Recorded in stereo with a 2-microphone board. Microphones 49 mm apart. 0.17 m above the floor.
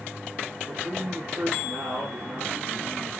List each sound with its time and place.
0.7 s a man speaking: 75° right (ahead or behind), 6.5 m